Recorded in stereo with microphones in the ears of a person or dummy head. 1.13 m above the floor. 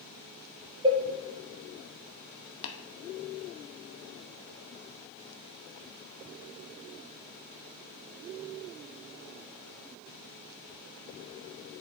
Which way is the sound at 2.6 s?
60° left (ahead or behind).